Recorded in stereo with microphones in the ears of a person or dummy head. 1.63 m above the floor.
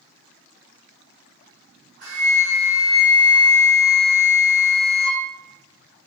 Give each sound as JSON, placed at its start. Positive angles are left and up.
{"t": 2.0, "sound": "a flute", "side_deg": -70, "distance_m": 1.5}